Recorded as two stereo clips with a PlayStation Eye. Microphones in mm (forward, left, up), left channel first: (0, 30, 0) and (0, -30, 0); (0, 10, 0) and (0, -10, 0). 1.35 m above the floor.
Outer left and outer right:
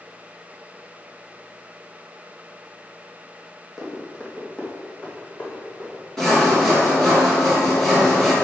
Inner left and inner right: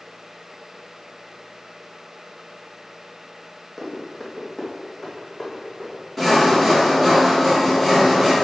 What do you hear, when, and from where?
3.8 s running footsteps: 5° left (ahead or behind), 2.5 m; by 6.0 s 35° left (ahead or behind), 3.5 m
6.2 s sawing: 10° left (ahead or behind), 1.8 m